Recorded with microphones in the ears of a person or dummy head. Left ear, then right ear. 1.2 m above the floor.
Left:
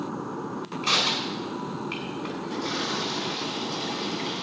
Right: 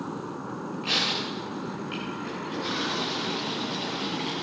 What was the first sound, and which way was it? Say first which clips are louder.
Crushing: left 2 dB; 45° left (ahead or behind).